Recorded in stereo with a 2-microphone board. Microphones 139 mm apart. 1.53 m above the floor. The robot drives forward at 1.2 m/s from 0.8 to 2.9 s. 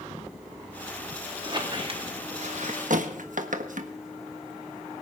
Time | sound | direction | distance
1.4 | a squeak | 35° right (ahead or behind) | 2.5 m